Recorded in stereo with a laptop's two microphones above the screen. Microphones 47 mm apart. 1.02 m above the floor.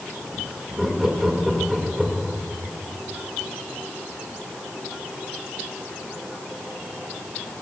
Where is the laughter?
10° right (ahead or behind), 3 m.